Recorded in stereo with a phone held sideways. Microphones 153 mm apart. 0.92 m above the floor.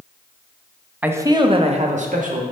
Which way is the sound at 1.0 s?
10° right (ahead or behind).